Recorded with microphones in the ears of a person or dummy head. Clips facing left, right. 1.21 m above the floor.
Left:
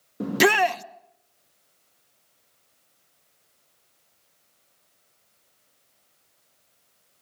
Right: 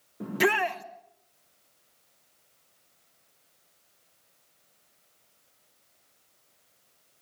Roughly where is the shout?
Left.